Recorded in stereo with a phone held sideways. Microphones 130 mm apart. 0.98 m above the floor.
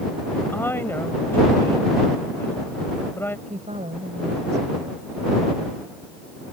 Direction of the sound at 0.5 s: 15° left (ahead or behind).